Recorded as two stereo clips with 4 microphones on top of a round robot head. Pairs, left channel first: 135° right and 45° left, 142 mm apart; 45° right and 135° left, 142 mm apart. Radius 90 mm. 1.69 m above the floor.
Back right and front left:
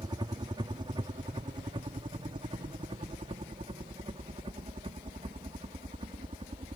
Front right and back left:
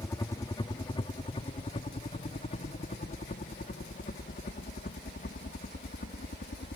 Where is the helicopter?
10° left; by 6.8 s 10° right.